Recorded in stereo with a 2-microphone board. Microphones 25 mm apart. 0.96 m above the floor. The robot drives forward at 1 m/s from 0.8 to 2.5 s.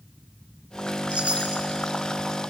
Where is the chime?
50° right (ahead or behind), 2.5 m; by 1.6 s 65° right (ahead or behind), 2.0 m.